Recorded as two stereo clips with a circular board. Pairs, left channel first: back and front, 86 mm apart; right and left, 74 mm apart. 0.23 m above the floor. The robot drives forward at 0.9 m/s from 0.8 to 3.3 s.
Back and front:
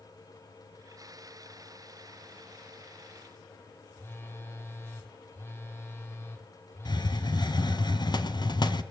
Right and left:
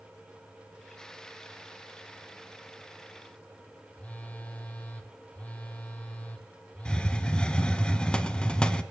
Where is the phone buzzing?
145° right, 1.7 m.